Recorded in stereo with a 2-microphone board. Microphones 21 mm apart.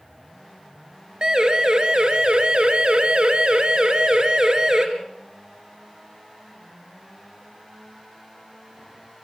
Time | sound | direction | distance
1.2 | a siren | 40° right (ahead or behind) | 2.5 m